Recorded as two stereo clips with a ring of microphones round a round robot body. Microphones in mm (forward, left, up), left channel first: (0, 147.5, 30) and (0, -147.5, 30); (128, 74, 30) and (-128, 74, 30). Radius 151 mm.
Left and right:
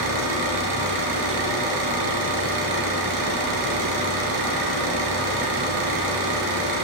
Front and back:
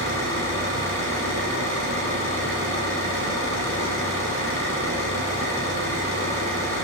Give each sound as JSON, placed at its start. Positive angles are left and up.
{"t": 0.0, "sound": "an engine running", "azimuth_deg": -80, "distance_m": 8.0}